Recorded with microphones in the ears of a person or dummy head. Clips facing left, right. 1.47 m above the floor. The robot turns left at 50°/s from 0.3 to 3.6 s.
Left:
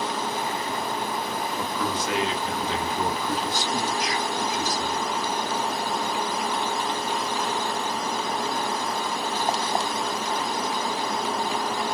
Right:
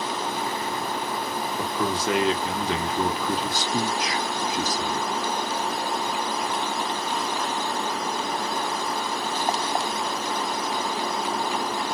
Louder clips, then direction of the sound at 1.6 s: Right 4 dB; 15° right.